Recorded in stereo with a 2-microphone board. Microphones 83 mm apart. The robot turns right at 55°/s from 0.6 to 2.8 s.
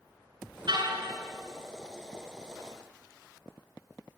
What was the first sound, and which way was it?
A car horn, 60° right (ahead or behind).